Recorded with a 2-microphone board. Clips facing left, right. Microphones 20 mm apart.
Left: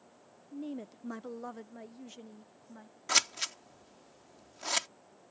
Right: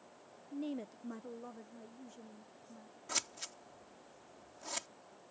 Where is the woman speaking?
30° right (ahead or behind); by 3.0 s 55° left (ahead or behind).